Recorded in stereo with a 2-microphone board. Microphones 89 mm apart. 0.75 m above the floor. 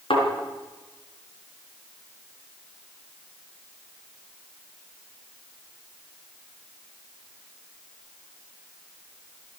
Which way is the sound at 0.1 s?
85° left.